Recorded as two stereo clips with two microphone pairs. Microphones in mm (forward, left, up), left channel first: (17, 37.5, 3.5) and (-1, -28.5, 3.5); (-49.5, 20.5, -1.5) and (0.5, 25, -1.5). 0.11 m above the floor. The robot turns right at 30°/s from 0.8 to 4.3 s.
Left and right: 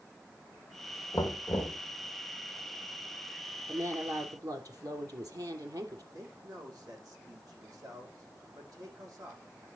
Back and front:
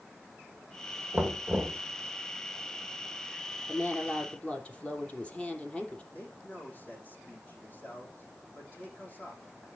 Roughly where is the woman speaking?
Behind right.